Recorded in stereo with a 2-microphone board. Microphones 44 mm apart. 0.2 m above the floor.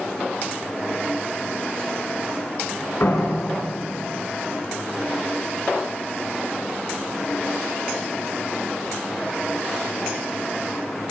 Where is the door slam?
60° left (ahead or behind), 1.8 m.